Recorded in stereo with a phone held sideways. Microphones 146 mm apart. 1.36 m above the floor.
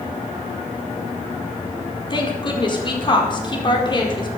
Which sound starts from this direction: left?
A woman speaking, at 2.1 s.